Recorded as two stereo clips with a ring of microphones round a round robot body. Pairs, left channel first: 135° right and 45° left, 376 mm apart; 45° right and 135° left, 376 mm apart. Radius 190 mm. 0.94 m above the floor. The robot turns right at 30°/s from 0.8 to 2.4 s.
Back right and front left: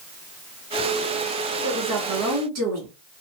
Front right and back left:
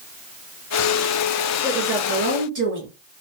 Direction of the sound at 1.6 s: 70° left.